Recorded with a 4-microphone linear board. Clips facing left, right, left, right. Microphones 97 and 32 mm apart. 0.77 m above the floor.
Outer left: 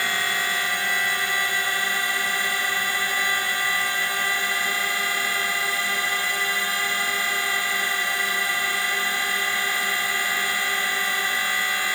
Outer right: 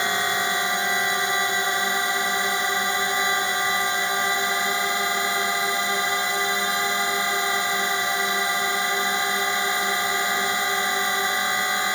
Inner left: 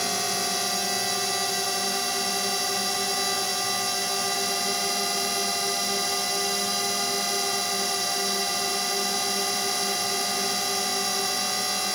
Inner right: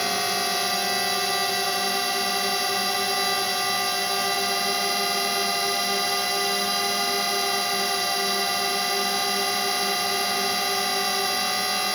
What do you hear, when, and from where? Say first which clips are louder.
0.0 s a drone: outer right 2 dB, inner right 3 dB; 20° right (ahead or behind)